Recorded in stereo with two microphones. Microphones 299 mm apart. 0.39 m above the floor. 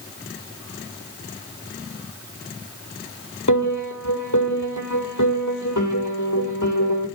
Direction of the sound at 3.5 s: 75° left (ahead or behind).